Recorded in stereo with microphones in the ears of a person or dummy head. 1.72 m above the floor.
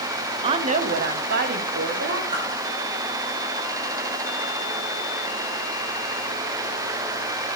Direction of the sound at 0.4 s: 30° right (ahead or behind).